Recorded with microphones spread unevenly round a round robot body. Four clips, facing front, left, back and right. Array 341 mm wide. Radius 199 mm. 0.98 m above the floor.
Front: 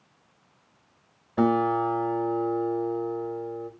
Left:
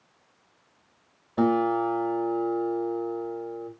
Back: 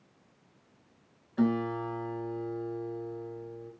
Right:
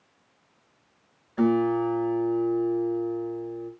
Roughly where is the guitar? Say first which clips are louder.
Even, front 6 dB; ahead left.